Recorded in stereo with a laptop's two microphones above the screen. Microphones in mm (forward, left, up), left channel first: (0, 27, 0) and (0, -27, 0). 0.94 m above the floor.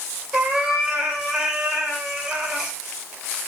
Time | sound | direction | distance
0.3 | a cat meowing | 15° right (ahead or behind) | 1.8 m